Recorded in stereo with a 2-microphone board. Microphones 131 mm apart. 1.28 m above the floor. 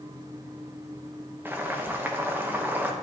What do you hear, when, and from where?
1.4 s boiling: 15° right (ahead or behind), 0.9 m